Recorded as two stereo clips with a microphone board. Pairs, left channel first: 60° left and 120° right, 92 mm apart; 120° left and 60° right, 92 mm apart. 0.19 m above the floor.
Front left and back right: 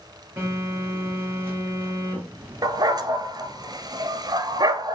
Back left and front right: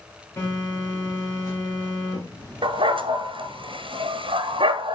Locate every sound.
0.4 s a phone buzzing: 175° left, 3.5 m
2.6 s a dog barking: 80° right, 0.7 m